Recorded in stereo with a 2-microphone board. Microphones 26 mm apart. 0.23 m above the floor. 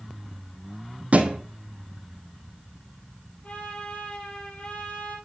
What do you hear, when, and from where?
1.1 s a thud: 60° right (ahead or behind), 1.3 m
3.4 s a trumpet: 50° left (ahead or behind), 4 m